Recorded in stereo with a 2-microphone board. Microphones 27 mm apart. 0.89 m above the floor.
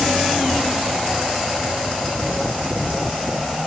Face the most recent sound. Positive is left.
No sound to turn to.